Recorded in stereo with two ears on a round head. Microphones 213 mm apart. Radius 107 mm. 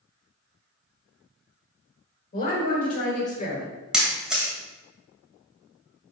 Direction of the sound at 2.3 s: 40° left (ahead or behind).